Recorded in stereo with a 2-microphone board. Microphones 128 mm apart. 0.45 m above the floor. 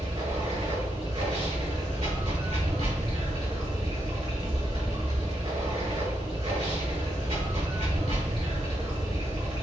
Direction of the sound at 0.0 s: 55° right (ahead or behind).